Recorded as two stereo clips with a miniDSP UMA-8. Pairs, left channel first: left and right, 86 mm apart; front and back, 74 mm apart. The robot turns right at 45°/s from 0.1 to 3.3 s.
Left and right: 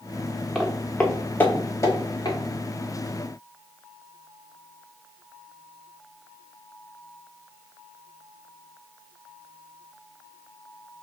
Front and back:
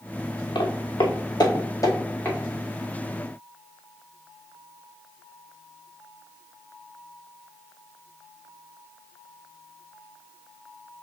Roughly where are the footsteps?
Ahead.